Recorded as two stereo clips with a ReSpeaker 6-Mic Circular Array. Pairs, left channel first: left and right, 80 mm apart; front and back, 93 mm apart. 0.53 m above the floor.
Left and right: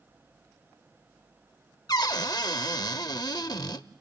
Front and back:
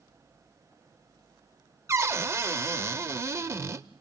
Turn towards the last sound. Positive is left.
turn(degrees=120)